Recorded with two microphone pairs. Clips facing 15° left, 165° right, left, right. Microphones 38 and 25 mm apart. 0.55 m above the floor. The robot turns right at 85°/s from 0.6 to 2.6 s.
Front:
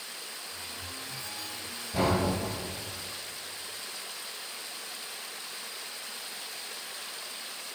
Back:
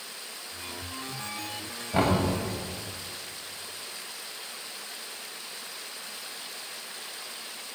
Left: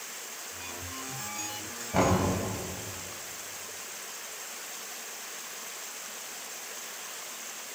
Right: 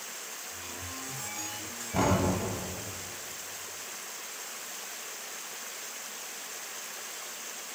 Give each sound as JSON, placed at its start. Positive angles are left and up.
{"t": 1.9, "sound": "knocking", "azimuth_deg": 155, "distance_m": 3.0}